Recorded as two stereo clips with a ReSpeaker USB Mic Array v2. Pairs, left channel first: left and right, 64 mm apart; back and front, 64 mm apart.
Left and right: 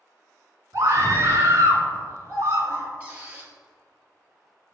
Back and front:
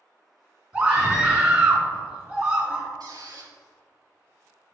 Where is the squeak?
25° right, 1.6 m.